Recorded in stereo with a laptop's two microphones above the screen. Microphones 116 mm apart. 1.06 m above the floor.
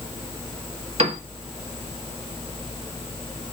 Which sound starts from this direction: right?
A piano, at 1.0 s.